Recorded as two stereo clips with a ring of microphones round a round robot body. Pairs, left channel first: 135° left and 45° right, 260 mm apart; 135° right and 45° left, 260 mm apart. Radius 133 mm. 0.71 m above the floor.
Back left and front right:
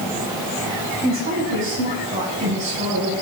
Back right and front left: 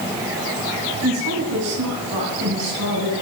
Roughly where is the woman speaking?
Ahead.